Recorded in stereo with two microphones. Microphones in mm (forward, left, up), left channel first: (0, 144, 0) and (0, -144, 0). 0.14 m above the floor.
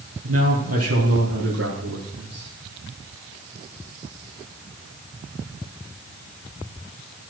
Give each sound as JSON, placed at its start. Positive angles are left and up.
{"t": 0.2, "sound": "a man speaking", "side_deg": -60, "distance_m": 4.0}